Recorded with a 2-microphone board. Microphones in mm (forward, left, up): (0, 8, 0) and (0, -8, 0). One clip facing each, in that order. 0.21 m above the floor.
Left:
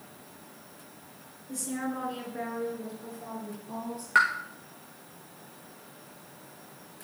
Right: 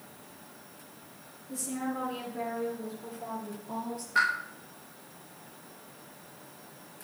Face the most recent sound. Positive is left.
turn(degrees=75)  # may be behind; listen again after turning